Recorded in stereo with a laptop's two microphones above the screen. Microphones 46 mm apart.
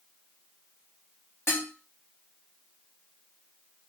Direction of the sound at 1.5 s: 75° left (ahead or behind).